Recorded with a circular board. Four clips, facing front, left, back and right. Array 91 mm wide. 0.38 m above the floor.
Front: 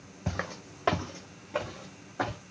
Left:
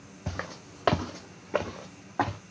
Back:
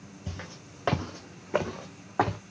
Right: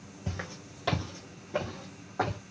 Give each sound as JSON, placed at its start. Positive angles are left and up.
{"t": 0.3, "sound": "footsteps", "azimuth_deg": 30, "distance_m": 0.6}